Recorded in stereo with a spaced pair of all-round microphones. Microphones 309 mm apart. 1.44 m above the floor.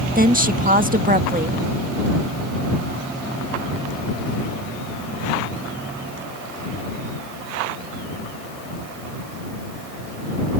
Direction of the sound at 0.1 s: 25° right (ahead or behind).